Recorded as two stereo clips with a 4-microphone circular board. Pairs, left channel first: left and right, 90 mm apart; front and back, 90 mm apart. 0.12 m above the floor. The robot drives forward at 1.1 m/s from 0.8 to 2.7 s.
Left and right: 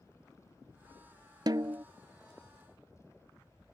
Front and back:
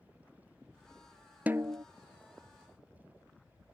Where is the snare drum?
110° right; by 1.8 s 145° right.